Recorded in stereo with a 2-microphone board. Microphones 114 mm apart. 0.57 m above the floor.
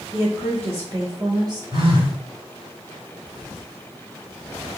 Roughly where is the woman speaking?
Centre.